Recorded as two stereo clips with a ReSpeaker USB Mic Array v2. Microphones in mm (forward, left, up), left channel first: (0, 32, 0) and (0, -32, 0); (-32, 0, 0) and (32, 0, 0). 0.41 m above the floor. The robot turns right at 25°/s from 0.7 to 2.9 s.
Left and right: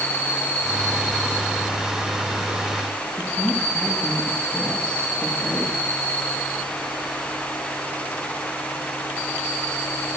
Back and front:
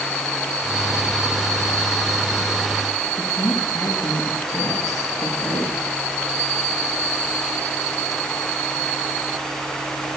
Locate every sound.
3.2 s a woman speaking: 160° left, 9 m